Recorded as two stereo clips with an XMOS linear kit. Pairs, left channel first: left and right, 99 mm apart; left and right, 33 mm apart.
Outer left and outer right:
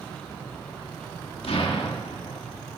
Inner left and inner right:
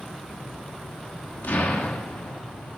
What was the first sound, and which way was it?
An explosion, 75° left (ahead or behind).